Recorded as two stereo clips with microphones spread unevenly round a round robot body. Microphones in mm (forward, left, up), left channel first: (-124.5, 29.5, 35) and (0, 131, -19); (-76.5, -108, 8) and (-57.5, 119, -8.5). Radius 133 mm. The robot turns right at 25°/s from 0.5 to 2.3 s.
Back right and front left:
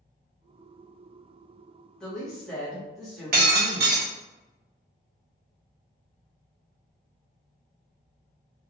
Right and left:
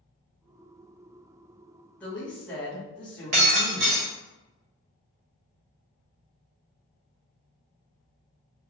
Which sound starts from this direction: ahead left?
Breaking glass, at 3.3 s.